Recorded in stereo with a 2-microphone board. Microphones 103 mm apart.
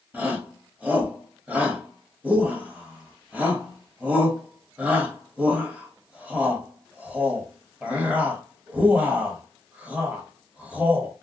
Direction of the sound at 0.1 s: 15° right (ahead or behind).